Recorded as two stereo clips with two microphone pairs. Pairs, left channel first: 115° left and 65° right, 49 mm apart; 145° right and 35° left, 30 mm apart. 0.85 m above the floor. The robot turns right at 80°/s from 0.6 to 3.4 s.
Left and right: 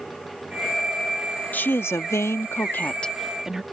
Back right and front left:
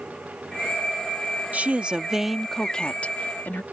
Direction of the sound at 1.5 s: 60° left.